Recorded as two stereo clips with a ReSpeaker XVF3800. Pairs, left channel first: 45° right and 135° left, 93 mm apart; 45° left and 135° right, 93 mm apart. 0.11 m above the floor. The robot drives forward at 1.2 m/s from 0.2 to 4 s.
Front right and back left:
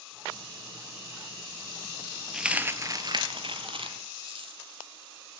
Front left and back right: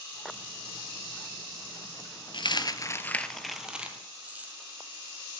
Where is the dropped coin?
50° left, 1.1 m; by 4.5 s 150° left, 1.7 m.